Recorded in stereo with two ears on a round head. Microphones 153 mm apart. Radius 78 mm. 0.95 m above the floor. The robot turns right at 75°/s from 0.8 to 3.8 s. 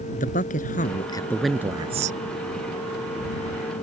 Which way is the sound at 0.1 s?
130° left.